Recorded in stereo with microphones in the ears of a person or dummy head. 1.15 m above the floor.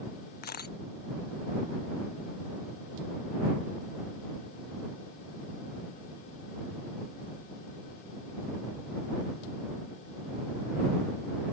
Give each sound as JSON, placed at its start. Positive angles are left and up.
{"t": 0.4, "sound": "a camera shutter", "side_deg": 50}